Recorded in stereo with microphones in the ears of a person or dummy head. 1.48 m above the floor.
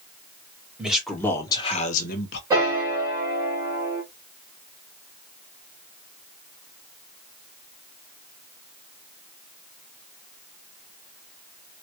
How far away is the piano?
About 0.7 m.